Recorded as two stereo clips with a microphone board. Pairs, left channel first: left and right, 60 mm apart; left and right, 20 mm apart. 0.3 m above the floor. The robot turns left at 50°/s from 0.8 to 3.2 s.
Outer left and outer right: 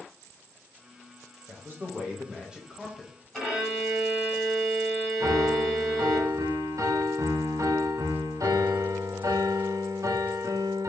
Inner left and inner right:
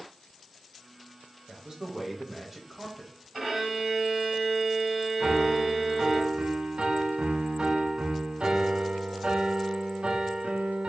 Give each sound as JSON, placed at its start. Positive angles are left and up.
{"t": 1.5, "sound": "a man speaking", "azimuth_deg": -105, "distance_m": 1.1}
{"t": 3.3, "sound": "a violin", "side_deg": 0, "distance_m": 1.9}
{"t": 5.2, "sound": "a piano", "side_deg": -65, "distance_m": 0.5}